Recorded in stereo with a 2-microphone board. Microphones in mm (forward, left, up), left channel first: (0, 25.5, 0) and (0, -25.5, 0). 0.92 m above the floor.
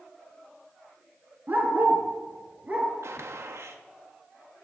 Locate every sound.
1.5 s a dog barking: 40° right (ahead or behind), 2.5 m; by 2.9 s 25° right (ahead or behind), 3 m
3.0 s a gunshot: 70° right (ahead or behind), 1.1 m